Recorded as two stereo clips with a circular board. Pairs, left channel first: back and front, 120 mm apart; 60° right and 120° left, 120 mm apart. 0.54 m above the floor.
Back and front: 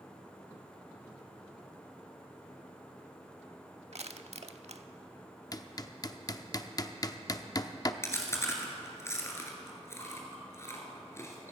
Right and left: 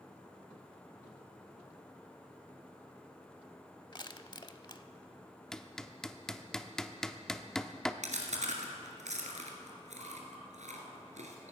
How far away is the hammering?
About 0.6 m.